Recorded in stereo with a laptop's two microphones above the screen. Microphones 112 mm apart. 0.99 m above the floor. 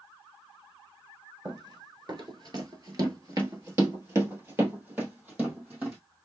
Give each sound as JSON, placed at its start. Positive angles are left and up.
{"t": 1.4, "sound": "running footsteps", "side_deg": -35, "distance_m": 1.4}